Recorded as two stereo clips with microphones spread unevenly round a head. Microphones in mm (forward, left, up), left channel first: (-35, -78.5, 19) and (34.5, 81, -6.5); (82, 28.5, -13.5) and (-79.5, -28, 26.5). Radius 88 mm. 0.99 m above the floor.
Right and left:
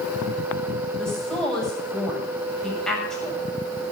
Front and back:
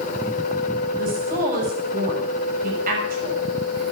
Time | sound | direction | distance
1.0 | a woman speaking | 160° left | 6.5 m